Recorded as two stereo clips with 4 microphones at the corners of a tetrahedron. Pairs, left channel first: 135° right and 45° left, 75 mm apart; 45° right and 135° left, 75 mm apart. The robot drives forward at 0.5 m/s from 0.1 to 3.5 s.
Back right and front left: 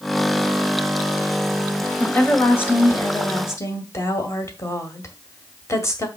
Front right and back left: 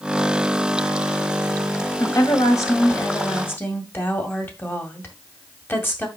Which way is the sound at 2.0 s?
70° right.